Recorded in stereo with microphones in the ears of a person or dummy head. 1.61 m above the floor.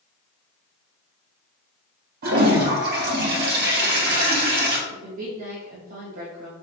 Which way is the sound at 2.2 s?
55° right (ahead or behind).